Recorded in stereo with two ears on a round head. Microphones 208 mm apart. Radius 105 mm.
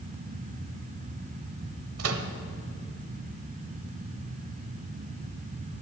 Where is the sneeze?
No sneeze in this recording.